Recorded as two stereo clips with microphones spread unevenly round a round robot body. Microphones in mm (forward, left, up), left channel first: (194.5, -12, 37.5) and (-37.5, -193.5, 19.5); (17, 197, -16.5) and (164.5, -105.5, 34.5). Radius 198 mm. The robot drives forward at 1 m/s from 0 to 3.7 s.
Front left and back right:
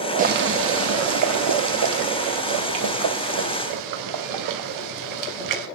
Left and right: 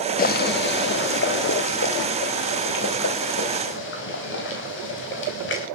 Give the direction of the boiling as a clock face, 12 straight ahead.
7 o'clock.